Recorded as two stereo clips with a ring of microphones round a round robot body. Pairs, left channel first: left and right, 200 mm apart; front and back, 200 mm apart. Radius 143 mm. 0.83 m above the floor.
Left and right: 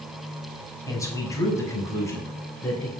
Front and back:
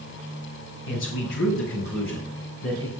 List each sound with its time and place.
0.9 s a man speaking: 15° left, 5.5 m